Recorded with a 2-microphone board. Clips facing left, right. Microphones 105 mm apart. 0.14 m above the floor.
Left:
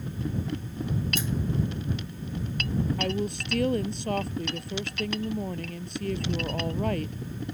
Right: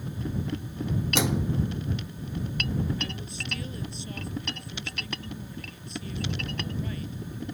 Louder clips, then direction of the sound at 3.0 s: Left 8 dB; 65° left (ahead or behind).